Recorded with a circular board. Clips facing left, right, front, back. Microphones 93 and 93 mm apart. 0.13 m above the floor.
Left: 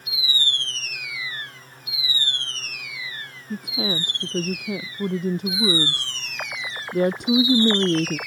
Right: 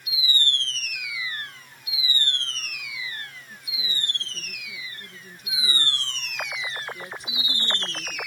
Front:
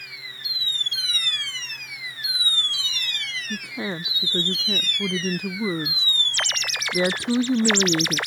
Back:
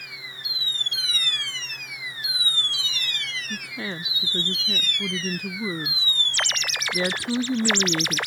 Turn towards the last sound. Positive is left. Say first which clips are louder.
# left 14 dB, front 5 dB
turn(degrees=70)